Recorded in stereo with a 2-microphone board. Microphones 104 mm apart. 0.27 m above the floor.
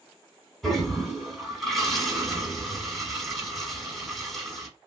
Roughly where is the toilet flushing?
Centre.